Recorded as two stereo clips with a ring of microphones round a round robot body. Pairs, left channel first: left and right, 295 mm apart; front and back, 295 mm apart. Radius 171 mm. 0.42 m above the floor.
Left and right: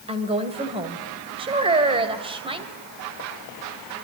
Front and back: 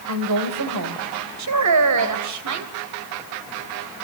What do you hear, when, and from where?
0.1 s a woman speaking: 160° right, 2.5 m
1.4 s a woman speaking: 160° right, 2.5 m